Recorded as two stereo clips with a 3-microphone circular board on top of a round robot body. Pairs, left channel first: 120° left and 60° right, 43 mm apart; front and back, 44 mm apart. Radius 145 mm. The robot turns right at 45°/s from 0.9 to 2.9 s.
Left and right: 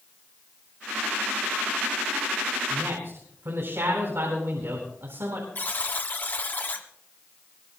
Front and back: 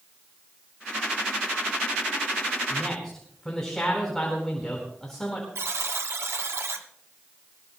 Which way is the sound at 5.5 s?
170° left.